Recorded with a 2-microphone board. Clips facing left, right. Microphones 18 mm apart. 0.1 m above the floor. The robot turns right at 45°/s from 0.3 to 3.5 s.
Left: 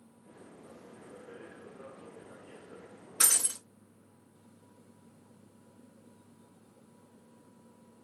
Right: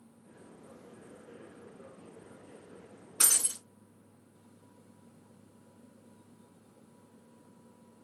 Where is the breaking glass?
5° left (ahead or behind), 2 m; by 3.6 s 20° left (ahead or behind), 2 m.